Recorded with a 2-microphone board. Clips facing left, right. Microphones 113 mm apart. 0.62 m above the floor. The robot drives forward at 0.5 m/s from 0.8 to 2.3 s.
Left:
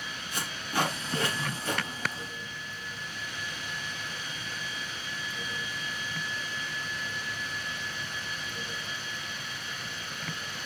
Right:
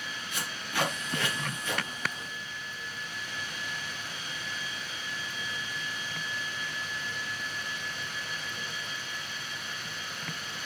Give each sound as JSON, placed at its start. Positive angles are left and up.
{"t": 0.3, "sound": "tape being pulled", "side_deg": 35, "distance_m": 3.0}